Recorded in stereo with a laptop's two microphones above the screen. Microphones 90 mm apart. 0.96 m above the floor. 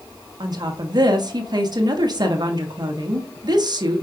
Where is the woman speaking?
50° right (ahead or behind), 1.0 m.